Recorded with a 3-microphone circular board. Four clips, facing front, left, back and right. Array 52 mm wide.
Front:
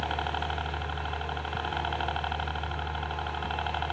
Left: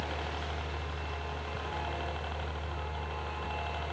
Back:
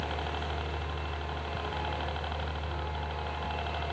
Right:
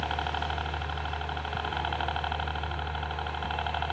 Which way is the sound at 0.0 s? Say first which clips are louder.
Right 6 dB, front 4 dB; 50° right.